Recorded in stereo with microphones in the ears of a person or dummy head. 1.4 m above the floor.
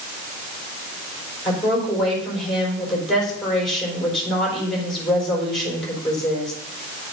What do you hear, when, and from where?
1.4 s a woman speaking: centre (ahead or behind), 4.5 m